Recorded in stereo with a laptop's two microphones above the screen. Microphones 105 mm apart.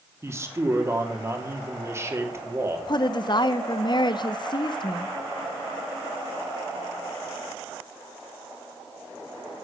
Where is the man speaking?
25° right (ahead or behind), 3 m.